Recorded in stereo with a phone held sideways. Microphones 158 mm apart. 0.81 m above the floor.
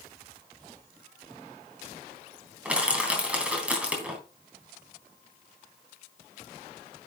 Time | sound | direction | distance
2.6 | crushing | 5° right (ahead or behind) | 3 m